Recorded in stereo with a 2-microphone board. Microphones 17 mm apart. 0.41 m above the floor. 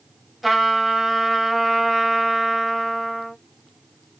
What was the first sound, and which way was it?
A trumpet, 10° right (ahead or behind).